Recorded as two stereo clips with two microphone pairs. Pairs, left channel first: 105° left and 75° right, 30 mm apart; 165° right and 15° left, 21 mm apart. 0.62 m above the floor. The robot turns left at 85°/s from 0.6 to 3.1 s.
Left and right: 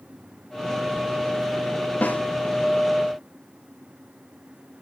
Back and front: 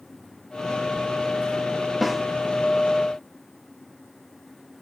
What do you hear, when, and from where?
2.0 s a snare drum: 105° left, 0.6 m; by 2.2 s 85° left, 0.6 m